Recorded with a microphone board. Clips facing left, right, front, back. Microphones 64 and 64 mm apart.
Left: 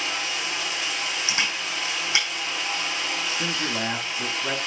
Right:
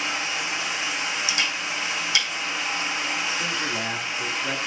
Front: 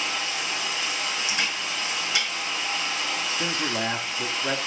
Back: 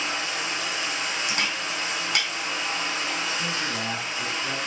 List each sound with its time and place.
0.0 s running water: 145° right, 2.5 m
1.3 s a camera shutter: 155° left, 5 m
3.4 s a man speaking: 25° left, 1.1 m